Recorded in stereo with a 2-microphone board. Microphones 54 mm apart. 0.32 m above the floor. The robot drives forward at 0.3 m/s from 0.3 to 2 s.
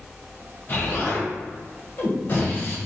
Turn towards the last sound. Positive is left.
turn(degrees=45)  # may be behind; listen again after turning